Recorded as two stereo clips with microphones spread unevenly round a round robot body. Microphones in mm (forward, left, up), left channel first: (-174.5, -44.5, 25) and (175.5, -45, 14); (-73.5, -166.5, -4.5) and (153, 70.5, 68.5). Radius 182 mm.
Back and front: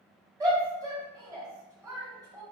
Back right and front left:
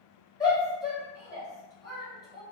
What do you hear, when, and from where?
0.4 s a shout: 75° right, 1.6 m